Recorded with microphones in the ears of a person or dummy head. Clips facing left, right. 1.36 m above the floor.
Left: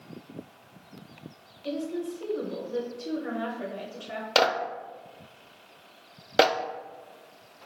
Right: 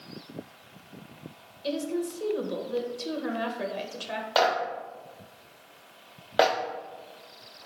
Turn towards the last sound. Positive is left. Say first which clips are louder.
# even
turn(degrees=35)  # may be behind; listen again after turning